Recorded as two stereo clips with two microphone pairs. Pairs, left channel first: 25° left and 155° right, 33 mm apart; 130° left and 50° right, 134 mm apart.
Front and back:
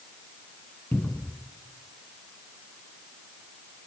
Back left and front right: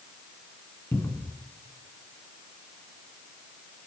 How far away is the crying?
I don't hear crying.